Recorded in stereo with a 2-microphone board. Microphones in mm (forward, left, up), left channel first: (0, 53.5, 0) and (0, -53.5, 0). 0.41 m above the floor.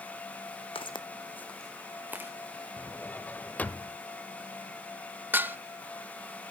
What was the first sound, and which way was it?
Footsteps, 60° left (ahead or behind).